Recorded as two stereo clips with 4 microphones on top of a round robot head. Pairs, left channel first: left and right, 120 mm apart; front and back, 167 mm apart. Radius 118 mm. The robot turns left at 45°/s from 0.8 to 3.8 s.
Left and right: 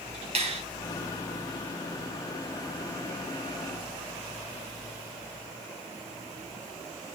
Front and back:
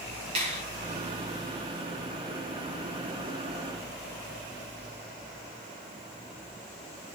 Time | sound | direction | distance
0.3 | a finger snap | 120° right | 1.4 m